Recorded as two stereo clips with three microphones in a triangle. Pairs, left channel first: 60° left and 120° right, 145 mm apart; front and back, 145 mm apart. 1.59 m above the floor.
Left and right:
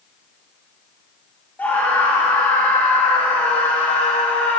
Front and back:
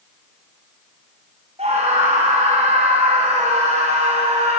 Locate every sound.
1.6 s a scream: 140° left, 5 m